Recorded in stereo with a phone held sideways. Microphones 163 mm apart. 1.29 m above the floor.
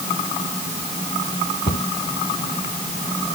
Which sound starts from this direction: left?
A cupboard door, at 1.7 s.